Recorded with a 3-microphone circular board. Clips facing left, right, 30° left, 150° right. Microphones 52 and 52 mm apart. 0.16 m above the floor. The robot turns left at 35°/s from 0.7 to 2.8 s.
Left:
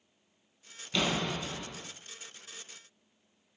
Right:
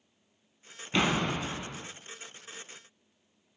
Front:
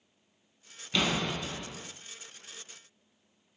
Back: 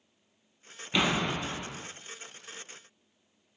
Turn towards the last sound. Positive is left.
turn(degrees=-160)